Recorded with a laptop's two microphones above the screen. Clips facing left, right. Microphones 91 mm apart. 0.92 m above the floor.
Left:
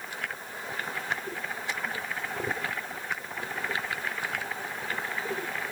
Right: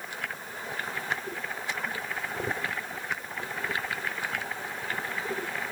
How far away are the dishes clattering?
I don't hear dishes clattering.